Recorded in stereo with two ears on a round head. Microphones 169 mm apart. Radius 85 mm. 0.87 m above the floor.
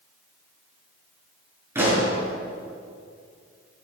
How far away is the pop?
About 7 m.